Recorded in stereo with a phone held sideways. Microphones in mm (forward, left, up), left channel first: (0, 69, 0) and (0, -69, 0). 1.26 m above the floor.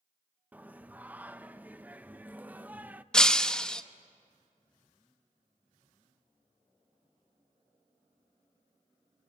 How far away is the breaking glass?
About 0.8 m.